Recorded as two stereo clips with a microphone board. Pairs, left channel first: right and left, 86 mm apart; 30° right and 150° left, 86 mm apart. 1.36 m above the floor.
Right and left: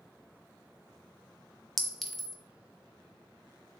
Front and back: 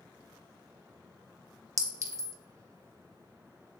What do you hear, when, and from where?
1.8 s a clink: straight behind, 0.7 m